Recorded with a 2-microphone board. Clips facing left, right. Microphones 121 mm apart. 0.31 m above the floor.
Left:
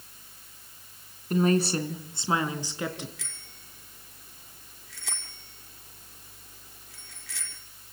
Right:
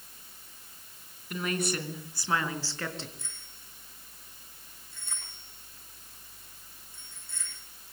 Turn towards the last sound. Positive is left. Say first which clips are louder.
# left 3 dB
turn(degrees=85)